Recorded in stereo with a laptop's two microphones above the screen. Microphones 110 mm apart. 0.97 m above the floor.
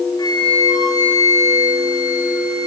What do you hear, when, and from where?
0.2 s a flute: 35° left (ahead or behind), 0.9 m